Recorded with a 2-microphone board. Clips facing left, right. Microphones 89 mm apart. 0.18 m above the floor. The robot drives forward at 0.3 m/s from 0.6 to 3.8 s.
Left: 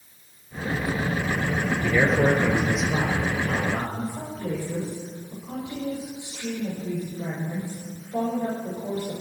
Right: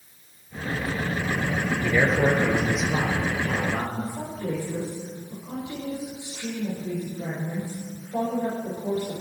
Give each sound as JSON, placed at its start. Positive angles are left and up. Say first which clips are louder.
{"t": 1.8, "sound": "a man speaking", "louder": "left 1 dB", "side_deg": -5, "distance_m": 3.0}
{"t": 4.0, "sound": "a woman speaking", "louder": "even", "side_deg": -10, "distance_m": 6.0}